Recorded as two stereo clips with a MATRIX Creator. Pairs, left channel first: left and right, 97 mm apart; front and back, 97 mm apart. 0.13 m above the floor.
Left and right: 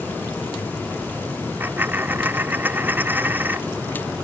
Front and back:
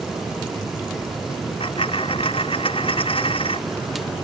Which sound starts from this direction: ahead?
A dropped coin, at 1.6 s.